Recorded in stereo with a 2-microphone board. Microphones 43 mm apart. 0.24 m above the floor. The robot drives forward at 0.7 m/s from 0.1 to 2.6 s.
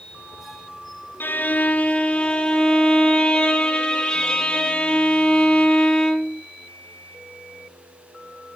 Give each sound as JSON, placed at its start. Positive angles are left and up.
{"t": 1.2, "sound": "a violin", "side_deg": 55, "distance_m": 0.6}